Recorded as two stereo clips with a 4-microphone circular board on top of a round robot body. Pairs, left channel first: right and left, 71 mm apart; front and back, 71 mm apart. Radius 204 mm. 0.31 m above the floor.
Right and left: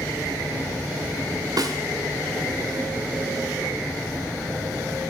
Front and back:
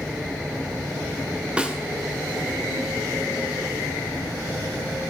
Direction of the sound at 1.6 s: 105° left.